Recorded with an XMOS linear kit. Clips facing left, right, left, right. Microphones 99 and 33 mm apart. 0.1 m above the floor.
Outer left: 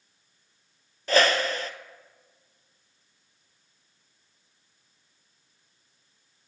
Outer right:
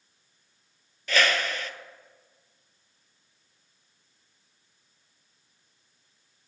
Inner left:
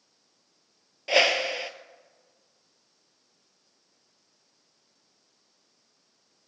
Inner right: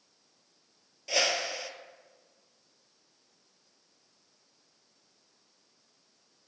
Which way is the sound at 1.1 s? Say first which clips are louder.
Outer left 4 dB, inner left 7 dB; 40° left (ahead or behind).